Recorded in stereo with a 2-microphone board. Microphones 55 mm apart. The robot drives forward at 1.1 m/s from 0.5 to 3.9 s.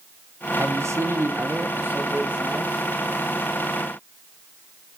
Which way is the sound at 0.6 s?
55° right (ahead or behind).